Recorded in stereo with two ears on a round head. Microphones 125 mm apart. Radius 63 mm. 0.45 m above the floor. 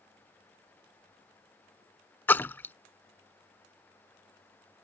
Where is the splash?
15° left (ahead or behind).